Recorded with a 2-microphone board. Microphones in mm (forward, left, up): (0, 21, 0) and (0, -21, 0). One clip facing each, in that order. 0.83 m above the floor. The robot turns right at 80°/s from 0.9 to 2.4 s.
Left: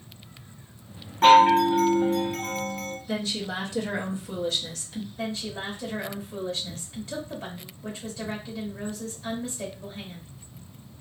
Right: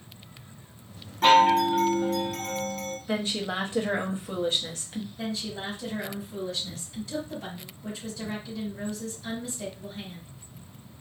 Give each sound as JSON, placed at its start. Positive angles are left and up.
{"t": 1.2, "sound": "a chime", "azimuth_deg": 65, "distance_m": 1.2}
{"t": 3.1, "sound": "a woman speaking", "side_deg": -30, "distance_m": 0.9}
{"t": 5.2, "sound": "a woman speaking", "side_deg": 35, "distance_m": 2.5}